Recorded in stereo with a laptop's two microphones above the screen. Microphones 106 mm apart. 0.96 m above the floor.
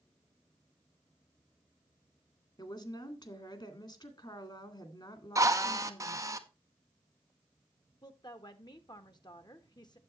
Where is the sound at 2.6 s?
45° left (ahead or behind), 2 m.